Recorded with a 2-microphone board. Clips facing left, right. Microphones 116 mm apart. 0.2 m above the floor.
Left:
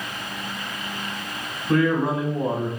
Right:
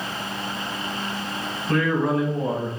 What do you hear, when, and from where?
1.7 s a man speaking: 10° left (ahead or behind), 1.0 m; by 2.7 s 30° left (ahead or behind), 1.1 m